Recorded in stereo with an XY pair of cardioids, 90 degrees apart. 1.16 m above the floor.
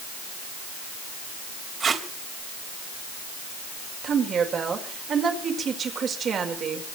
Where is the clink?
I don't hear a clink.